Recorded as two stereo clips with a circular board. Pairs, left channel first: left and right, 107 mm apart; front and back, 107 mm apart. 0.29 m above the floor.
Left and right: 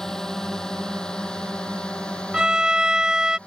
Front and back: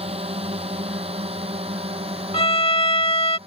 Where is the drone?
175° left; by 3.5 s 170° left.